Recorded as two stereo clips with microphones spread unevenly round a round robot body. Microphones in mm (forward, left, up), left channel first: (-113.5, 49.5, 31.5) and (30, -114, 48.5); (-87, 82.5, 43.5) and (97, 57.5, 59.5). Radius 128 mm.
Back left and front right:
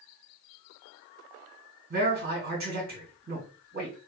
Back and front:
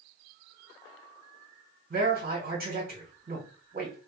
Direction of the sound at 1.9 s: 20° right.